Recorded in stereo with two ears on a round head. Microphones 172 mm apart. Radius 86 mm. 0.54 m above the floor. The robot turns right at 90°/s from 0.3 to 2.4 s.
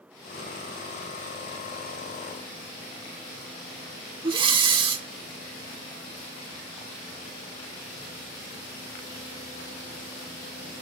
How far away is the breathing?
About 1.2 m.